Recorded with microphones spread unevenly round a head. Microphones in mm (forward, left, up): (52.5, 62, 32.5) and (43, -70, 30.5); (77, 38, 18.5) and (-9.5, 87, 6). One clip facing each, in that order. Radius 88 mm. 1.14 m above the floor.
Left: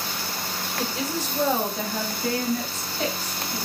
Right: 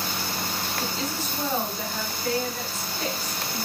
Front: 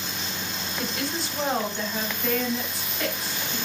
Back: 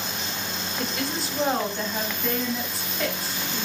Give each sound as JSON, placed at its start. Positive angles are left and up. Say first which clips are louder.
{"t": 0.8, "sound": "a woman speaking", "louder": "left 5 dB, back 1 dB", "azimuth_deg": 60, "distance_m": 4.5}